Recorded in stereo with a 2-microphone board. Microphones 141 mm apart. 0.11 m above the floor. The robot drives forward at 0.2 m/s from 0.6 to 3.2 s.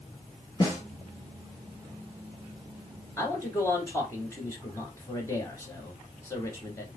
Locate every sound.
0.6 s a snare drum: 30° left (ahead or behind), 2 m
3.2 s a man speaking: 20° left (ahead or behind), 1.3 m